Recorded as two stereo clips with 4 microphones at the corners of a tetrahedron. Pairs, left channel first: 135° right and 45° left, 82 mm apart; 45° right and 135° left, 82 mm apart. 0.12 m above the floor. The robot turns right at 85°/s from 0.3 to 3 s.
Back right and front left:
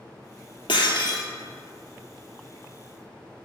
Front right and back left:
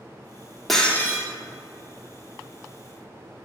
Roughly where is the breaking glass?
Behind right.